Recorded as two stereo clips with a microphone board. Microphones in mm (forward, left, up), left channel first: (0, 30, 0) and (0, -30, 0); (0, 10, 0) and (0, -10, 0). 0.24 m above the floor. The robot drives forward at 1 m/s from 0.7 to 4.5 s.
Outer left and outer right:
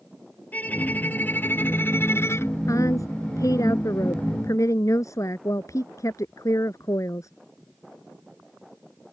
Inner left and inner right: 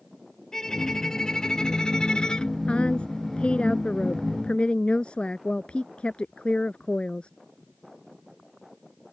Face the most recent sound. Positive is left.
turn(degrees=65)  # may be behind; listen again after turning